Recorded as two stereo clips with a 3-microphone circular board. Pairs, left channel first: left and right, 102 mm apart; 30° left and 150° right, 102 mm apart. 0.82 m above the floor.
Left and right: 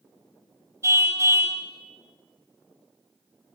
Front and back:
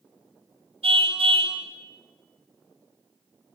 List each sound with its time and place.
0.8 s a car horn: 150° right, 2.5 m